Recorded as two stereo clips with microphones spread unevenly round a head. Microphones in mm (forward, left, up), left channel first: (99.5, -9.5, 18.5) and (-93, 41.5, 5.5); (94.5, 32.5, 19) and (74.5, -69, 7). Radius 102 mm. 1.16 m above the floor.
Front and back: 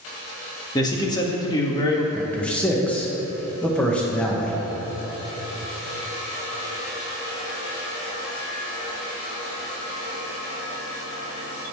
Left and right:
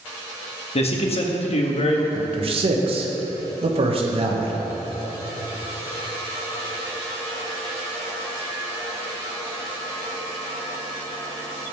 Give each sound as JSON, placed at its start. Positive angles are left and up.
{"t": 0.8, "sound": "a man speaking", "azimuth_deg": 55, "distance_m": 1.7}
{"t": 2.1, "sound": "a man speaking", "azimuth_deg": -100, "distance_m": 1.4}